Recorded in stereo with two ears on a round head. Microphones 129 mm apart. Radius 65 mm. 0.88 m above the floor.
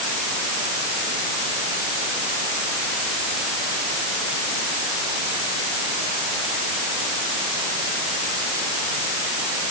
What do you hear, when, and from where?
Only background noise.